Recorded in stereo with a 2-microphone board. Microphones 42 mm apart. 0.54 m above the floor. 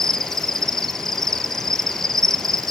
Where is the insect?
10° left (ahead or behind), 0.7 m.